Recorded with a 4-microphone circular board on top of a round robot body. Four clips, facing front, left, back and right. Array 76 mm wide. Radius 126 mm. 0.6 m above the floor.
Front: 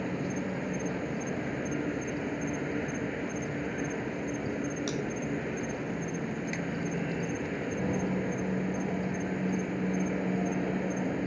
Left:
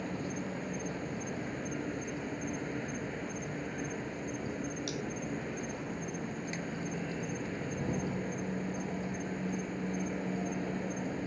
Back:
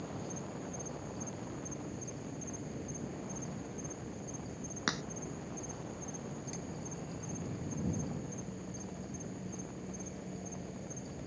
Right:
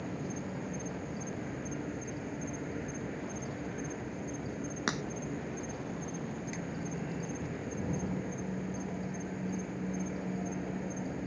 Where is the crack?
120° right.